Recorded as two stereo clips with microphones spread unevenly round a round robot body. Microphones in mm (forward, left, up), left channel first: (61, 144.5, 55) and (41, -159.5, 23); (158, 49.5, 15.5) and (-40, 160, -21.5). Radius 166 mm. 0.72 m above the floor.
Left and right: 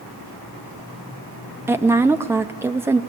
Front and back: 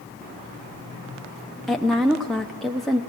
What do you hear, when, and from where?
1.7 s a woman speaking: 145° right, 0.6 m